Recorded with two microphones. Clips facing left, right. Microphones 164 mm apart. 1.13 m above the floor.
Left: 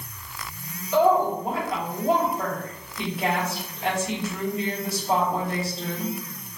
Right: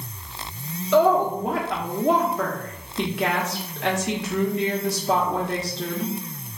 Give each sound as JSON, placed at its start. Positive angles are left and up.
{"t": 0.9, "sound": "a woman speaking", "side_deg": -85, "distance_m": 0.8}